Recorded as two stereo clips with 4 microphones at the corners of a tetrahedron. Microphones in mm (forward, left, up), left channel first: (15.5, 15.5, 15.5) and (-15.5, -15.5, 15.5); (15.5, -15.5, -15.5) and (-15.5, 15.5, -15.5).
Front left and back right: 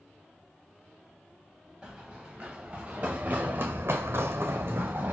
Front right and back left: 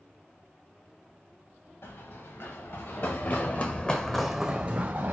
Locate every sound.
1.8 s running footsteps: 60° right, 1.7 m; by 5.1 s straight behind, 0.9 m